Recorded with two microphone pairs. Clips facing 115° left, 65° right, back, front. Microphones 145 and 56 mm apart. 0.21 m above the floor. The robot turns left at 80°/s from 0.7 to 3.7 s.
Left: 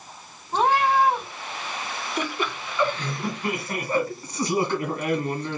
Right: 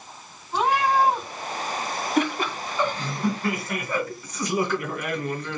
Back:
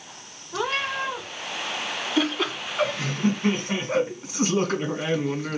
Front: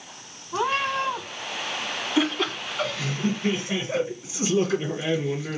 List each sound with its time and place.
0.5 s a cat meowing: 60° left, 2 m; by 1.3 s 10° left, 2 m
2.2 s laughter: 75° right, 2.0 m; by 5.6 s 160° left, 2.0 m